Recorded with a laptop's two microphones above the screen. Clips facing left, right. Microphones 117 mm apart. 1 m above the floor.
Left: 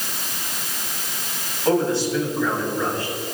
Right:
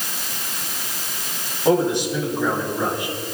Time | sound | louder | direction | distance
1.6 | a man speaking | right 1 dB | 15° right (ahead or behind) | 7.5 m